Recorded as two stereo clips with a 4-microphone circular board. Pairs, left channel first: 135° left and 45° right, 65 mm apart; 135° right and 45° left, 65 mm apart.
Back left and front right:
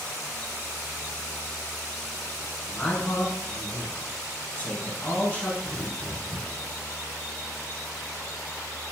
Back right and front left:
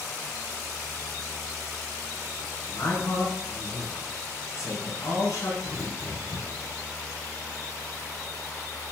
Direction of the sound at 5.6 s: 55° left.